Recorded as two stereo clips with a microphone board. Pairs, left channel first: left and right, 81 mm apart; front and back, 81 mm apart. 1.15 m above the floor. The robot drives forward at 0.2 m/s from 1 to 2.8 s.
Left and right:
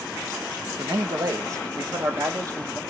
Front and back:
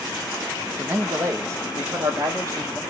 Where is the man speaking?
125° right, 1.4 m; by 2.8 s 135° right, 1.6 m.